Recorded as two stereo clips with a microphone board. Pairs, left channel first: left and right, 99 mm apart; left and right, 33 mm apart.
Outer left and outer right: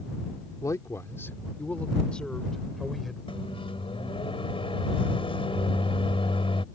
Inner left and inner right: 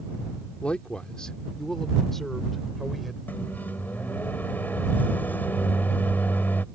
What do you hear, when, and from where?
0.6 s a man speaking: 35° left (ahead or behind); by 3.2 s centre (ahead or behind)
3.3 s a microwave: 65° left (ahead or behind)